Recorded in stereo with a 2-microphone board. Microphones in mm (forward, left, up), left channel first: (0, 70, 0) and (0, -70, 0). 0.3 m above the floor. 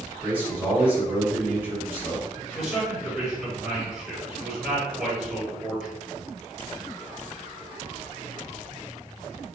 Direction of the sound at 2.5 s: 5° right (ahead or behind).